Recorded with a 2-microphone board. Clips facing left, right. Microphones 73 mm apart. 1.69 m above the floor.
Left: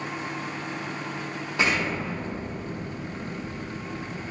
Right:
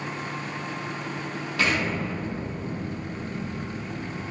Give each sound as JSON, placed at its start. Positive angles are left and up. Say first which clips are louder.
{"t": 1.6, "sound": "an explosion", "louder": "even", "side_deg": 25, "distance_m": 1.1}